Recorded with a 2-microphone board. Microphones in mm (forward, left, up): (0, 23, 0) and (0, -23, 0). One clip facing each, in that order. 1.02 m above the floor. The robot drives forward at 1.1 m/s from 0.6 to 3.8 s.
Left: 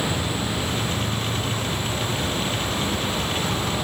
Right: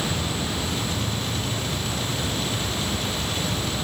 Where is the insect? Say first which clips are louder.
Left 2 dB; 35° left (ahead or behind), 7 m; by 3.9 s 55° left (ahead or behind), 4.5 m.